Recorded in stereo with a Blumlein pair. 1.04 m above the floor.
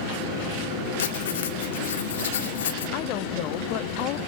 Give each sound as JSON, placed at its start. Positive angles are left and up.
{"t": 1.0, "sound": "writing", "azimuth_deg": 60, "distance_m": 1.3}
{"t": 2.9, "sound": "a woman speaking", "azimuth_deg": 40, "distance_m": 1.3}